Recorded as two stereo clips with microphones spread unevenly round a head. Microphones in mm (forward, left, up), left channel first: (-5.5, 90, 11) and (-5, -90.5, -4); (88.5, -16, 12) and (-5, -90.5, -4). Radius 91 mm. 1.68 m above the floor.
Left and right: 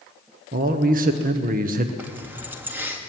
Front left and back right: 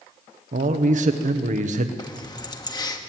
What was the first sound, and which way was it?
A man speaking, 135° right.